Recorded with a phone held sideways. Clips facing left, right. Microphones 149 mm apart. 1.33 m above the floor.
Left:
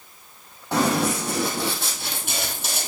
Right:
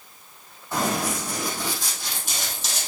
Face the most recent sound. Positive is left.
turn(degrees=55)  # may be behind; listen again after turning